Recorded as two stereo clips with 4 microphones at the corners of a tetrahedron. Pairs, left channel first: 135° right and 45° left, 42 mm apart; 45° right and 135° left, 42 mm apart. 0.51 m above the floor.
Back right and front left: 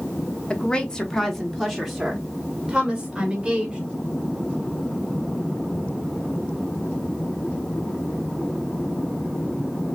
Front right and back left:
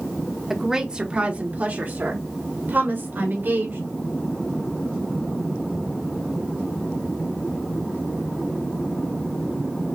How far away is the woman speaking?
About 0.9 m.